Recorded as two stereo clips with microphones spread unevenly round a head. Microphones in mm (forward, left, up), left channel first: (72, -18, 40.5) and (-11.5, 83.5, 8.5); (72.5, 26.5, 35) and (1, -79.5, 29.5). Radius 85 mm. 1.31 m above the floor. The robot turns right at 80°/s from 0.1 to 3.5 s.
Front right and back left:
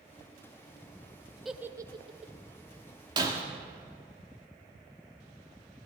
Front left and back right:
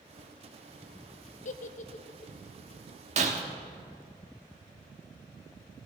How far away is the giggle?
About 0.7 m.